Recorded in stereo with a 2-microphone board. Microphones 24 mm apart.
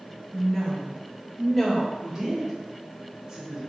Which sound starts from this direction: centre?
A woman speaking, at 0.3 s.